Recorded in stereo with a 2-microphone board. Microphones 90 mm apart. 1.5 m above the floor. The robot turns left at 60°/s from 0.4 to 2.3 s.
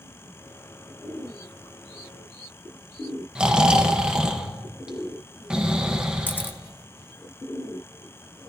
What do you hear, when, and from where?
3.4 s snoring: 10° right (ahead or behind), 1.2 m
6.3 s a camera shutter: 20° left (ahead or behind), 0.6 m